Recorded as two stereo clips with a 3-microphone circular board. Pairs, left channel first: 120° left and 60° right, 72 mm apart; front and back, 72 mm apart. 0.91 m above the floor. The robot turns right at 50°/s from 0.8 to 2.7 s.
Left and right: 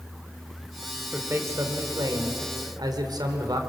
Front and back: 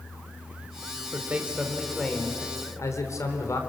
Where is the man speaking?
120° right, 3 m; by 3.6 s 40° right, 3 m.